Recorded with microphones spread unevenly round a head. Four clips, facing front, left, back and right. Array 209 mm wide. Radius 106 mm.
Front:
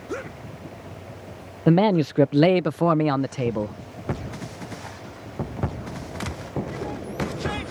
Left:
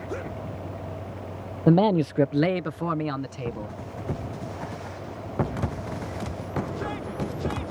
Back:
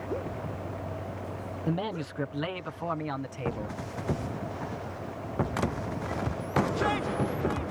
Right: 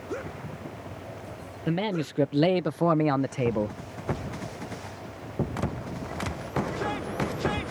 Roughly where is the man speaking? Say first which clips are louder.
Left 9 dB, front 14 dB; ahead left.